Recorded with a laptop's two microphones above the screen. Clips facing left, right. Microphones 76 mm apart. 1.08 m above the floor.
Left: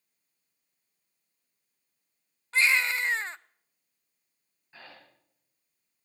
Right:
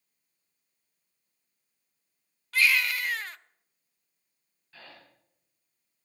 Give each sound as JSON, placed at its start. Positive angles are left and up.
{"t": 2.5, "sound": "a baby crying", "side_deg": 25, "distance_m": 0.5}
{"t": 4.7, "sound": "breathing", "side_deg": 20, "distance_m": 5.0}